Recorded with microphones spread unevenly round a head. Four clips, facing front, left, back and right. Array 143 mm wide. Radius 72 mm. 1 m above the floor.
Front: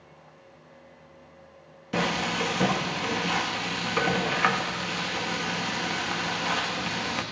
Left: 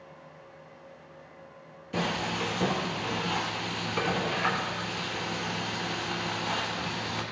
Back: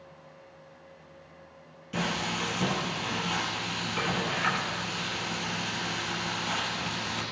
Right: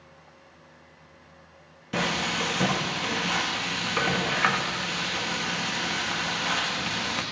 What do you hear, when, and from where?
1.9 s frying: 30° right, 1.2 m